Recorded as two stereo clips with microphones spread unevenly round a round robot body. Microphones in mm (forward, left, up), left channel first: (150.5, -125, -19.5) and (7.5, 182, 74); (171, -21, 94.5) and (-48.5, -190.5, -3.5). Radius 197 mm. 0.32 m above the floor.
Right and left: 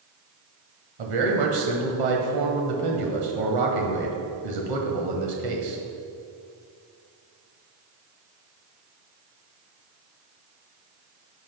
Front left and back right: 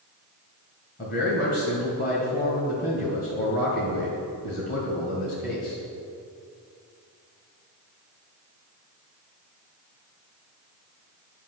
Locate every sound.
1.0 s a man speaking: 110° left, 1.8 m